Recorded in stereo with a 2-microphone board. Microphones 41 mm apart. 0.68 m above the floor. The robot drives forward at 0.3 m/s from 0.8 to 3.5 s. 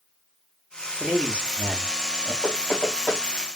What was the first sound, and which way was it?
A man speaking, 10° right (ahead or behind).